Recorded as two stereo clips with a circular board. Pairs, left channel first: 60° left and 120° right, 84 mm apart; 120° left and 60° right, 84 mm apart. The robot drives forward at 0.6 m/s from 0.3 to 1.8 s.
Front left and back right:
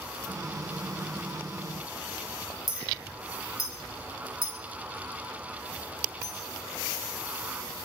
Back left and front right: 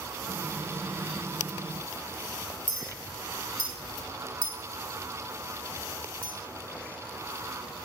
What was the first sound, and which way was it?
A clink, 110° left.